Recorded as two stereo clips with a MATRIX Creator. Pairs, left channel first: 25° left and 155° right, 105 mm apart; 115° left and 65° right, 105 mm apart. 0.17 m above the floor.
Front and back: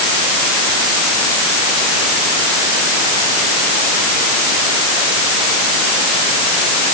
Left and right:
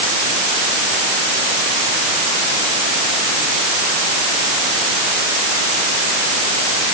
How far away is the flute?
I don't hear a flute.